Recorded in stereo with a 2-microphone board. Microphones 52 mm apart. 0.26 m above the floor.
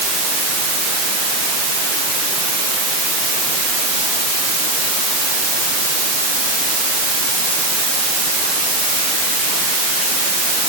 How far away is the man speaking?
I don't hear a man speaking.